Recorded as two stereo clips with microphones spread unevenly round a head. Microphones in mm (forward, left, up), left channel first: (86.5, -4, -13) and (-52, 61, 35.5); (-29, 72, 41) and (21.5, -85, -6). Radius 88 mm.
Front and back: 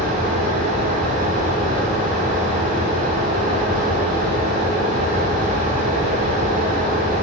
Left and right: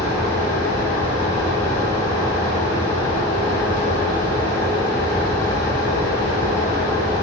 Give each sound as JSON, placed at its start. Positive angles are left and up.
{"t": 0.0, "sound": "a fan", "azimuth_deg": 165, "distance_m": 2.5}